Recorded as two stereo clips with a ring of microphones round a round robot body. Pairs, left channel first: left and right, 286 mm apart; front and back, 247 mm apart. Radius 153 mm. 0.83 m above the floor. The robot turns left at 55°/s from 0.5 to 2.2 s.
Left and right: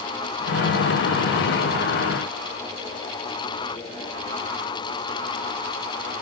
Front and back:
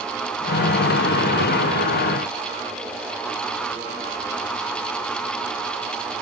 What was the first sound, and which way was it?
Only background noise.